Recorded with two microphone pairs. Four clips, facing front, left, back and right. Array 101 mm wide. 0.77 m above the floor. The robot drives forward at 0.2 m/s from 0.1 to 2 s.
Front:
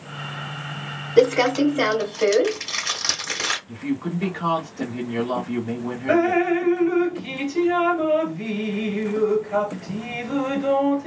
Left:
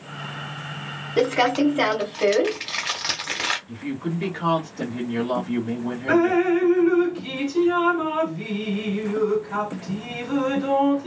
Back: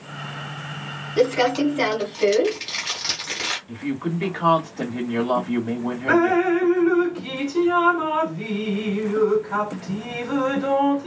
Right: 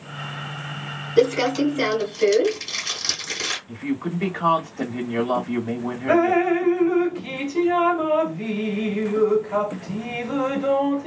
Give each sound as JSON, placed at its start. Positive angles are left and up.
{"t": 1.2, "sound": "crumpling", "azimuth_deg": 55, "distance_m": 1.8}
{"t": 3.7, "sound": "a woman speaking", "azimuth_deg": -160, "distance_m": 1.8}
{"t": 6.1, "sound": "dripping", "azimuth_deg": 175, "distance_m": 1.8}